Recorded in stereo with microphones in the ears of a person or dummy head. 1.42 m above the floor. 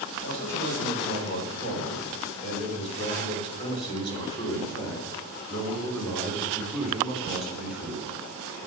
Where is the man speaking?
50° left (ahead or behind), 6 m; by 8.1 s 10° right (ahead or behind), 5 m.